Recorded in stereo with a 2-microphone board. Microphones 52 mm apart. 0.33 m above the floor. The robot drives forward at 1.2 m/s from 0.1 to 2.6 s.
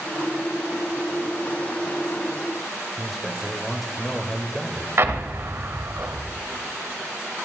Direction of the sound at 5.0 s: 50° right (ahead or behind).